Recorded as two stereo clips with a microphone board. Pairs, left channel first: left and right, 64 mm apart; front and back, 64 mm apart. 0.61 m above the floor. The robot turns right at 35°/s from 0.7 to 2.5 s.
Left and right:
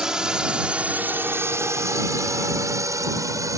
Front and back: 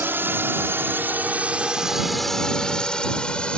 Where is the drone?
160° right; by 3.6 s 70° right.